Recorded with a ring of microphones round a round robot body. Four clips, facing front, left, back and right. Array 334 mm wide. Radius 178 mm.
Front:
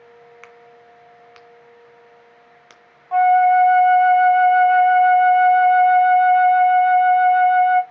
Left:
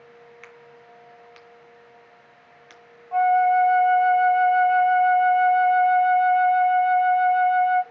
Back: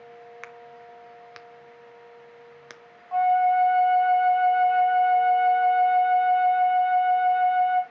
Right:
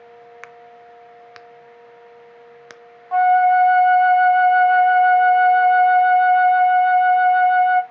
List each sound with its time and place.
0.4 s a crack: 110° right, 0.8 m
3.1 s a flute: 50° right, 0.7 m